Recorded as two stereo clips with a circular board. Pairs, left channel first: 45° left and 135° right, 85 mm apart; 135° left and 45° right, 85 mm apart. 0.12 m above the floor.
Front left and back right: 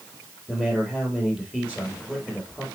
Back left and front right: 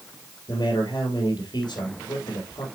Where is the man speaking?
120° left, 3.5 m.